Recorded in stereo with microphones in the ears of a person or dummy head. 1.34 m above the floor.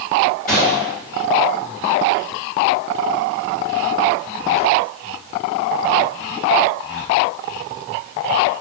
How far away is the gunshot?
About 1.4 m.